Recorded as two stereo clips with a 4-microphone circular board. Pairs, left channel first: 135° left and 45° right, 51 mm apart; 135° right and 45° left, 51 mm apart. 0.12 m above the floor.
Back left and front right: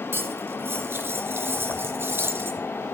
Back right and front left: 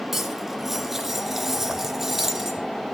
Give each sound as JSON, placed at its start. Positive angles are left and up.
{"t": 0.1, "sound": "cutlery clinking", "azimuth_deg": -40, "distance_m": 0.9}